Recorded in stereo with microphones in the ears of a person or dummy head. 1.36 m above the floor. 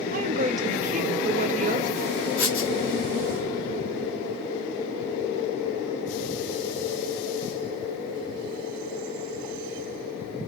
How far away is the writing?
About 2 m.